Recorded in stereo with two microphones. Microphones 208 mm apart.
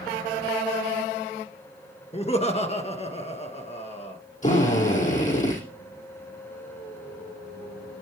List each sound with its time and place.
2.1 s laughter: 35° left (ahead or behind), 1.5 m
4.4 s a drill: 40° left (ahead or behind), 5.5 m